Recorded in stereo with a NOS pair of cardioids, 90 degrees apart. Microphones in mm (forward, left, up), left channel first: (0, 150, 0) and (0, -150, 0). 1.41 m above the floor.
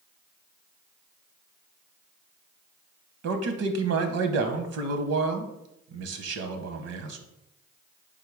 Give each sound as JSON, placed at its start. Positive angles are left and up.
{"t": 3.2, "sound": "a man speaking", "azimuth_deg": -60, "distance_m": 0.8}